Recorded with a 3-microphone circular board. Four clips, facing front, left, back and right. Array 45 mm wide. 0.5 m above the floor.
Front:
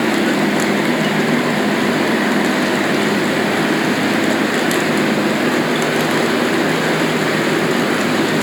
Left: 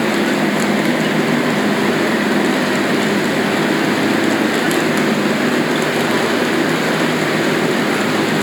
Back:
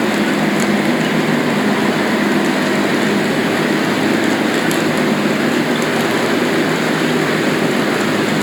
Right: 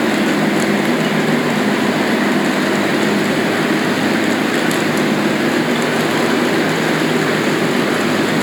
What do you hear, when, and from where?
Only background noise.